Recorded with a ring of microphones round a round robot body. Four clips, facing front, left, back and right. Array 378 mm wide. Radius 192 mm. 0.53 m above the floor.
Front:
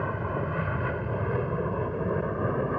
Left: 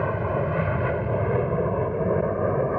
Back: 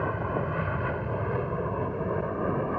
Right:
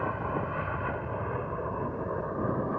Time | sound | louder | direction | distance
0.0 | an aircraft | left 6 dB, back 1 dB | 90° left | ?